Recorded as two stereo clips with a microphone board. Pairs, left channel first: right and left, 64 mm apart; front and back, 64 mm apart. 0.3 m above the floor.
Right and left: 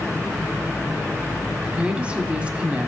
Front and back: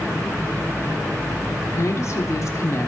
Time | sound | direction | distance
1.6 | a woman speaking | 25° left | 1.5 m